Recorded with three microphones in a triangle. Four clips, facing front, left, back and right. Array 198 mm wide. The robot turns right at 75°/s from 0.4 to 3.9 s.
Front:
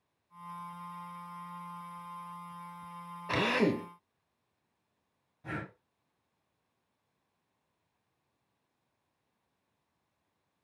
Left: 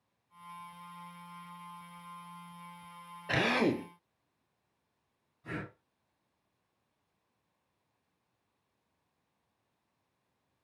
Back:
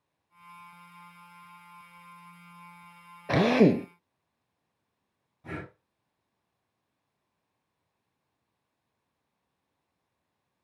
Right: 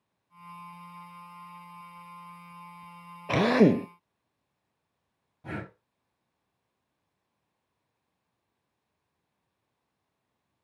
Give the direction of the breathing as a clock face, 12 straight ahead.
3 o'clock.